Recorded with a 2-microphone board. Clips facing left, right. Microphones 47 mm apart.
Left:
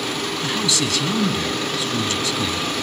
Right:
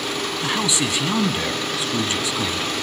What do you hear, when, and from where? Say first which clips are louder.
0.4 s a man speaking: right 1 dB; 20° right (ahead or behind), 1.4 m